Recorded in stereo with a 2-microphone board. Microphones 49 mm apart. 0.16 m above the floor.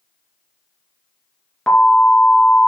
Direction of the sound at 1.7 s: 15° left (ahead or behind).